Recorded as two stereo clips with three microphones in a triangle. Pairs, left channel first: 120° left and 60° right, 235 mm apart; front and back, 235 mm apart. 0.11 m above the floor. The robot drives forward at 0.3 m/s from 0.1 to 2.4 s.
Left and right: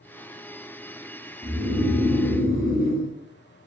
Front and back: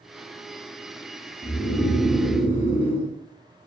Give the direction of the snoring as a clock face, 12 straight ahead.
9 o'clock.